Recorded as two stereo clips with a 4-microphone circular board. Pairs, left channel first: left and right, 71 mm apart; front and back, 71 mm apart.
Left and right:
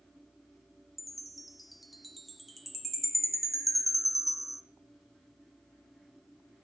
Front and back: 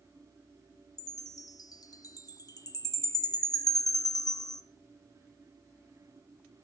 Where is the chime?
Straight ahead, 1.2 m.